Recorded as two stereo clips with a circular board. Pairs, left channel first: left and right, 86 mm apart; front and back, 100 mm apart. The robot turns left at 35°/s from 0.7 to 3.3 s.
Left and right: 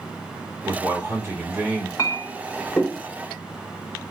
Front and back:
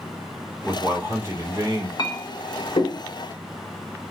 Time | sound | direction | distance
0.6 | a man speaking | 115° right | 1.7 m
2.0 | a clink | 40° left | 0.8 m